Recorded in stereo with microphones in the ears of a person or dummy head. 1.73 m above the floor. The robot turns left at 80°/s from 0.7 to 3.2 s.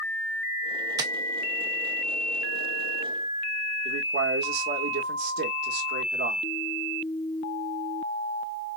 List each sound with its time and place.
1.0 s tapping: 25° right (ahead or behind), 0.7 m; by 1.1 s 35° right (ahead or behind), 0.7 m
3.9 s a man speaking: 65° right (ahead or behind), 1.1 m